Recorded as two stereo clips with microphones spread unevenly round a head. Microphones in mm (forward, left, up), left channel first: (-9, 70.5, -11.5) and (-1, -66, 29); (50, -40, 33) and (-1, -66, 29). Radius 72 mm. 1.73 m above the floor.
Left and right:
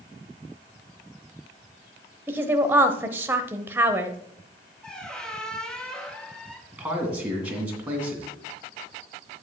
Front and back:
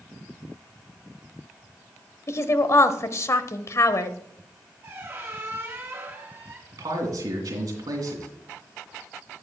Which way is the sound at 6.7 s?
170° right.